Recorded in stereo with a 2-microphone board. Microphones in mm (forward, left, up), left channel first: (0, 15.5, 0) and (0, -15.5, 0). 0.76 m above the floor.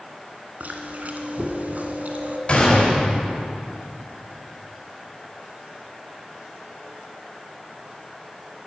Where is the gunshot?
35° left (ahead or behind), 4.5 m.